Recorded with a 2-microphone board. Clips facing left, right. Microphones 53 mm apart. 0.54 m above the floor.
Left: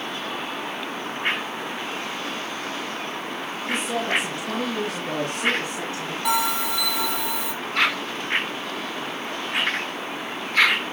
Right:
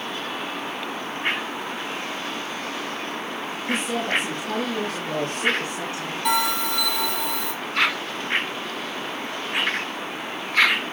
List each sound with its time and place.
3.7 s a woman speaking: centre (ahead or behind), 3.5 m; by 6.2 s 30° left (ahead or behind), 4 m
6.2 s a bell: 5° left (ahead or behind), 6 m